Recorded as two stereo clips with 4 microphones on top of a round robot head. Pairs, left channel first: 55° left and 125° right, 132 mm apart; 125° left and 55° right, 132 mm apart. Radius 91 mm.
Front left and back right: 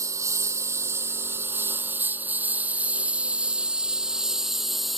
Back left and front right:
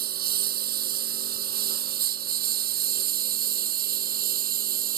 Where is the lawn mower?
60° right; by 5.0 s 40° right.